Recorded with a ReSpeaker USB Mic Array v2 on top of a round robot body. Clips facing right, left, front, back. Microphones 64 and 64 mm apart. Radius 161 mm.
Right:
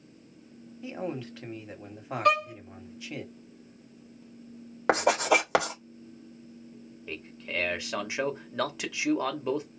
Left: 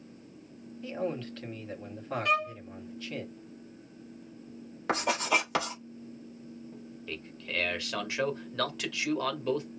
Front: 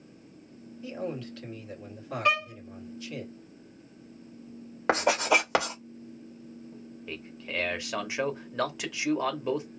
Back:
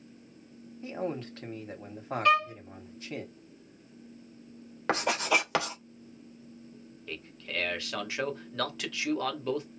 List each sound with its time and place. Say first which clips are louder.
0.8 s a man speaking: left 1 dB, back 1 dB; 160° right, 1.8 m
2.2 s a violin: right 5 dB, back 3 dB; 70° right, 1.2 m
4.9 s writing: right 5 dB, front 3 dB; 70° right, 2.5 m
7.1 s a man speaking: right 2 dB, front 2 dB; 45° right, 1.5 m